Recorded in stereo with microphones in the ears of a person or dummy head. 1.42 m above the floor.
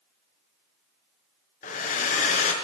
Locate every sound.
1.6 s a hair dryer: 40° left (ahead or behind), 0.6 m